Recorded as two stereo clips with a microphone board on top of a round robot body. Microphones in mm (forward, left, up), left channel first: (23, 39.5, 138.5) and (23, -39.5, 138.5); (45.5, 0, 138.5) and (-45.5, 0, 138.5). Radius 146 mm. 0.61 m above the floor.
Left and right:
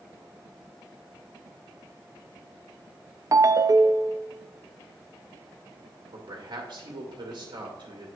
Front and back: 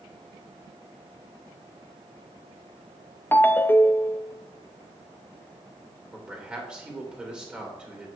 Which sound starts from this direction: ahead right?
A ringtone, at 3.3 s.